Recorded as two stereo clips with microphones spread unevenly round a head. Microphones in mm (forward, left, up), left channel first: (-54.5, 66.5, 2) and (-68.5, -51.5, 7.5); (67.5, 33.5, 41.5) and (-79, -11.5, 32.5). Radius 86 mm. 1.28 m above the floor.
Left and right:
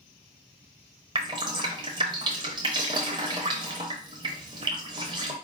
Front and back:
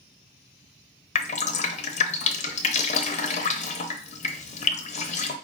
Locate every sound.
1.1 s dripping: 30° right, 0.6 m